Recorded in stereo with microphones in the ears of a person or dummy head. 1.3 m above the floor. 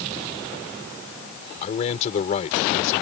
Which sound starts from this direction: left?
A man speaking, at 1.6 s.